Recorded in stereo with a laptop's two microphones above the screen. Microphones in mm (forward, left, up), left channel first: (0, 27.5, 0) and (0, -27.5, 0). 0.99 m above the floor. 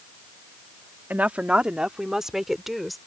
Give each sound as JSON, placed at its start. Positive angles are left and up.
{"t": 1.1, "sound": "a woman speaking", "side_deg": -30}